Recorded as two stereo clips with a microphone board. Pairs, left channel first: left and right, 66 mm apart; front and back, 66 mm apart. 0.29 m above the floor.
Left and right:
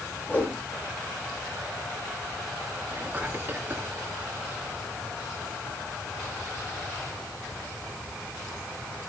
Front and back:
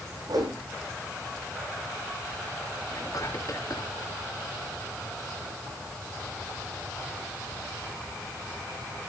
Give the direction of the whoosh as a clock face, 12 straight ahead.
7 o'clock.